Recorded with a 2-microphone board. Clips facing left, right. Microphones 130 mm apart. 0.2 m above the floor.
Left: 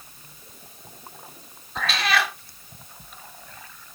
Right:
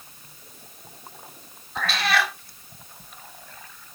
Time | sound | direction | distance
1.8 | a cat meowing | 5° right (ahead or behind) | 1.3 m